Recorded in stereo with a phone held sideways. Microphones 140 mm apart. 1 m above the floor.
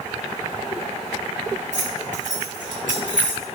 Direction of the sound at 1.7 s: 65° right (ahead or behind).